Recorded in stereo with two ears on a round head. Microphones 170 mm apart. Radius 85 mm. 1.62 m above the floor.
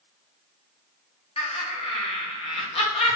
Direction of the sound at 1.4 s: 30° left (ahead or behind).